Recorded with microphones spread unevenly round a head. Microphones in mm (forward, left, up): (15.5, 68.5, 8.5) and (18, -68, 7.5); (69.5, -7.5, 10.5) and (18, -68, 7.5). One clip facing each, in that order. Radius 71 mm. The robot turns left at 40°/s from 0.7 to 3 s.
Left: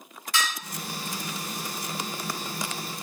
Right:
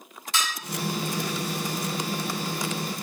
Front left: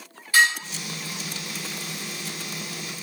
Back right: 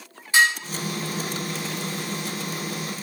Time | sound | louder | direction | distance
0.3 | dishes clattering | left 1 dB, even | 100° right | 0.7 m